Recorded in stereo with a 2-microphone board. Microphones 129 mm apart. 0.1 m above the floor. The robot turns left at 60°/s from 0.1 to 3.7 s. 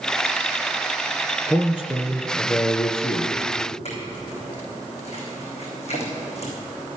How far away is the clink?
About 4 m.